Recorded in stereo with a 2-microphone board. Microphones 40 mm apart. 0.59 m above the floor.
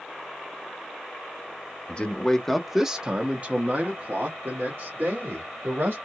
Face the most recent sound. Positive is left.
turn(degrees=-65)  # may be behind; listen again after turning